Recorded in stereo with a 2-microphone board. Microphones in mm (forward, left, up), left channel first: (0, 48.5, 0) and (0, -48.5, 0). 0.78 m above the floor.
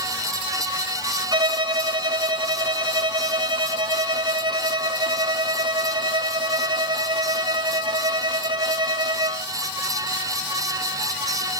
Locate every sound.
1.3 s a violin: 50° right (ahead or behind), 0.8 m